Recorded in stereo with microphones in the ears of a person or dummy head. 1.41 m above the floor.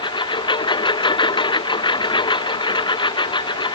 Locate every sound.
0.0 s a lawn mower: 30° left (ahead or behind)